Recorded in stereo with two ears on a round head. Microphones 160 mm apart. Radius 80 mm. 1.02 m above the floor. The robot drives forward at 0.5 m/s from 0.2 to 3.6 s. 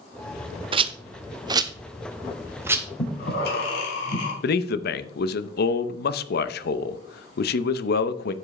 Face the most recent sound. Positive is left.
turn(degrees=60)  # may be behind; listen again after turning